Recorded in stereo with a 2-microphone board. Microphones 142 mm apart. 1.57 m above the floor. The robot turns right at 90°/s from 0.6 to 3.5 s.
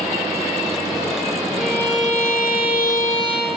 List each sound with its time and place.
1.6 s a violin: 5° right, 0.6 m; by 3.6 s 165° left, 0.6 m